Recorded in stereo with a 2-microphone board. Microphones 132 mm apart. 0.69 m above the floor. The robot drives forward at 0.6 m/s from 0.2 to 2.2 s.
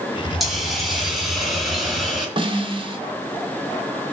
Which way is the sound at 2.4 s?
40° right (ahead or behind).